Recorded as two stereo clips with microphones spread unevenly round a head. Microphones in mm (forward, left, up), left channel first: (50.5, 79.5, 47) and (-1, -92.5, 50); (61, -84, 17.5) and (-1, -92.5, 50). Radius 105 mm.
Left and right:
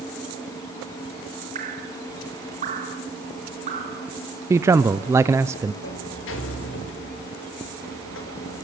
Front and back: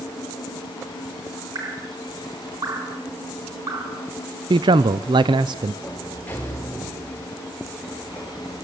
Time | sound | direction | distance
1.6 | dripping | 165° right | 3.5 m
4.5 | a man speaking | 175° left | 0.5 m
5.8 | a sliding door | 85° left | 3.5 m